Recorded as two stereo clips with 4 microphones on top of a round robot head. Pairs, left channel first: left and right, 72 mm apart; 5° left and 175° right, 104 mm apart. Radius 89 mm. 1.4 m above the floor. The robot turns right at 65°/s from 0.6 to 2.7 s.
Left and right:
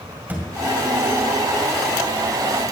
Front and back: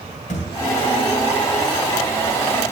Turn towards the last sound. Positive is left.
turn(degrees=110)